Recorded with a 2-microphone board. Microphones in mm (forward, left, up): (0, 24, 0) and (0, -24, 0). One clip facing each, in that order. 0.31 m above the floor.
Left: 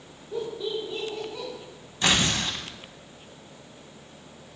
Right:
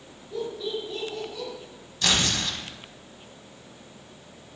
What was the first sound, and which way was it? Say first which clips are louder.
Laughter: left 1 dB; 25° left (ahead or behind).